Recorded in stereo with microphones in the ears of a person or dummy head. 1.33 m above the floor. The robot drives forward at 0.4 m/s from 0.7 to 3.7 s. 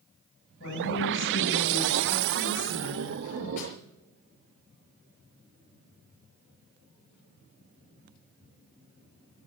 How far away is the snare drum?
About 5 m.